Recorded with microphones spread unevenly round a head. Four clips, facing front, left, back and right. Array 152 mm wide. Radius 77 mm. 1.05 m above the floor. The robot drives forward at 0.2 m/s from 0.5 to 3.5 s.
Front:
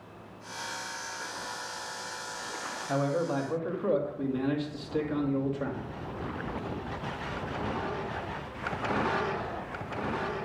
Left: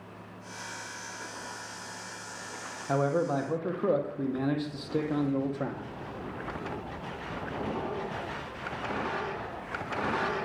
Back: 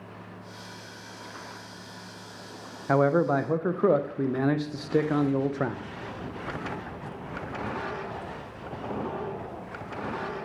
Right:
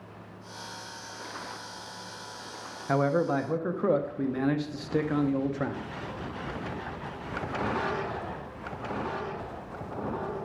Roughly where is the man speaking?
Behind.